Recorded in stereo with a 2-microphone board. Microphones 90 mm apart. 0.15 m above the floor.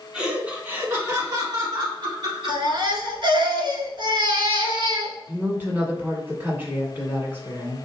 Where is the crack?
I don't hear a crack.